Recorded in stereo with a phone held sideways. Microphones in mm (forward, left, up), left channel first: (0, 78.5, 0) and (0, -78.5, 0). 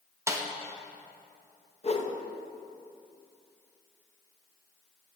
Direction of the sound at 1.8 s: 40° left (ahead or behind).